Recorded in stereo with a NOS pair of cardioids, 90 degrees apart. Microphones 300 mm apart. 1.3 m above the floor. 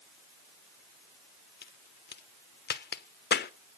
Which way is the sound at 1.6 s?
35° left.